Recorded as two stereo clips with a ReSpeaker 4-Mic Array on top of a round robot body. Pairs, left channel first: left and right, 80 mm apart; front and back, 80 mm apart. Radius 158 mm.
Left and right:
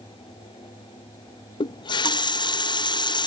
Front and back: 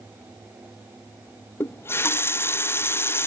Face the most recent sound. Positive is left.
turn(degrees=60)